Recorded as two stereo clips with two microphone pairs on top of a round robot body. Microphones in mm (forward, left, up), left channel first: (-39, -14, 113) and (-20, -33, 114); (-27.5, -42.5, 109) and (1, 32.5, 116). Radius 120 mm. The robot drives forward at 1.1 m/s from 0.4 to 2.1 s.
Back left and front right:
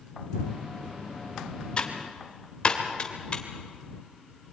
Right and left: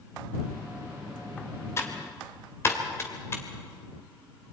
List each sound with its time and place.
1.8 s typing on a keyboard: 170° right, 1.9 m